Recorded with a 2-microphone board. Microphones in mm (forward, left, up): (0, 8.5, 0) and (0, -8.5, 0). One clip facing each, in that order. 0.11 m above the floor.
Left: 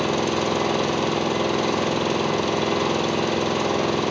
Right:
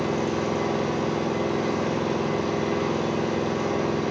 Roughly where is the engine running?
Left.